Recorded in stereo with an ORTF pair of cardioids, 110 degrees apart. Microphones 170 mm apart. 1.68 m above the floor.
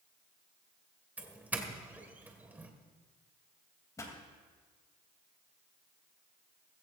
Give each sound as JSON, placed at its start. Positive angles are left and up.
{"t": 1.2, "sound": "a doorbell", "azimuth_deg": -10, "distance_m": 1.8}
{"t": 4.0, "sound": "a pop", "azimuth_deg": 20, "distance_m": 3.0}